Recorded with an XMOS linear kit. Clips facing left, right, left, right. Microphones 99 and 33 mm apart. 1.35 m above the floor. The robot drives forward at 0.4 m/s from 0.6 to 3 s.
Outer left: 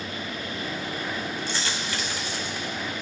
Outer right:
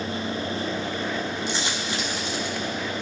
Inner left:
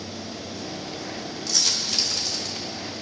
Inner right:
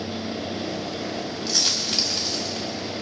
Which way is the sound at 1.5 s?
20° right (ahead or behind).